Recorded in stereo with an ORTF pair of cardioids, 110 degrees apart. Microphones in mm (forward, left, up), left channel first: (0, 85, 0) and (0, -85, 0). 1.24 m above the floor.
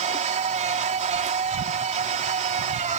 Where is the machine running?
45° right.